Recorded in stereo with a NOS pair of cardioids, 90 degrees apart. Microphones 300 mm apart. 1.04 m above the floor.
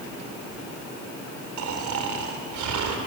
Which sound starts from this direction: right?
Snoring, at 1.6 s.